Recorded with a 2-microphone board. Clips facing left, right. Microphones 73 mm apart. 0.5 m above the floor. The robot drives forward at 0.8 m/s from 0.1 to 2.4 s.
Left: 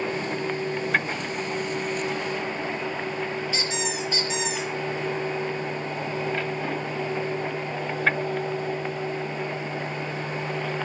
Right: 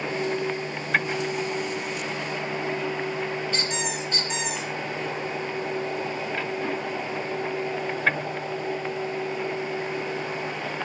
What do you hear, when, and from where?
3.5 s a squeak: 10° left (ahead or behind), 5 m